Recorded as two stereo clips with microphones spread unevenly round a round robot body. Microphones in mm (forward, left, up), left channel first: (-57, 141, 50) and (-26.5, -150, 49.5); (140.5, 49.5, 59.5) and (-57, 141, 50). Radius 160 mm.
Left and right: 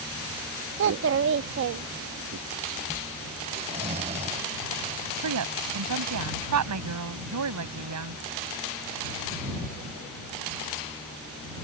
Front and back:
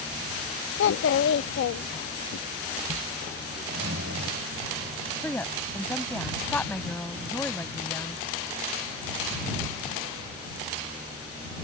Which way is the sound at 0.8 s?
40° right.